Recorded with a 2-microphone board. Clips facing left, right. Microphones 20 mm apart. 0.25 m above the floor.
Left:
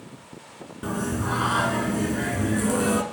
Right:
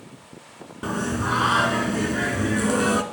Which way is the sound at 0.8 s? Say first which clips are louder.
Right 2 dB; 25° right (ahead or behind).